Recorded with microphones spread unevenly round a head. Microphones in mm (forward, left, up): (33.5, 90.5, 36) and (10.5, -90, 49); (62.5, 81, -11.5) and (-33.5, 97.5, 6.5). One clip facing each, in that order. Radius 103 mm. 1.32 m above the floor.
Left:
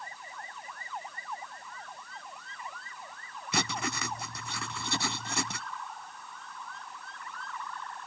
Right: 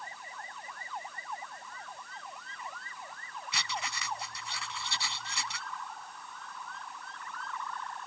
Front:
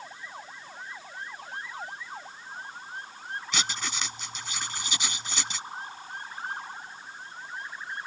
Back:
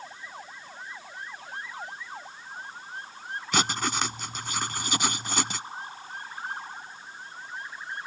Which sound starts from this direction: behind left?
Writing, at 3.5 s.